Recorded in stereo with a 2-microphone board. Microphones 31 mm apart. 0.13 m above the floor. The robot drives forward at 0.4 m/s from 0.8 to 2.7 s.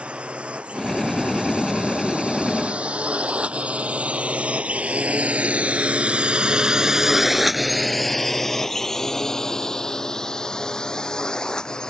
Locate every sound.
0.0 s a drone: 40° right (ahead or behind); by 11.9 s 25° left (ahead or behind)